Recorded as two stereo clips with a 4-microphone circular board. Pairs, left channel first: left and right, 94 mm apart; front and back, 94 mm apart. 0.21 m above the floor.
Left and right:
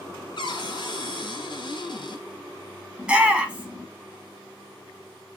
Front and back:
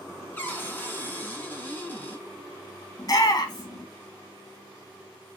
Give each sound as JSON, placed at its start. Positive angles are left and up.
{"t": 0.4, "sound": "a cupboard door", "azimuth_deg": 70, "distance_m": 1.6}
{"t": 3.0, "sound": "a shout", "azimuth_deg": -15, "distance_m": 1.5}